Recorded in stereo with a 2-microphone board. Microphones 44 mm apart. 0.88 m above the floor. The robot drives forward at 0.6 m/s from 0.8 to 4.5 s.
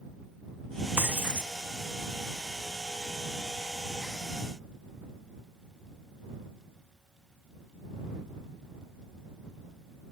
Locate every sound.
1.0 s breaking glass: 50° right (ahead or behind); by 1.5 s 45° right (ahead or behind)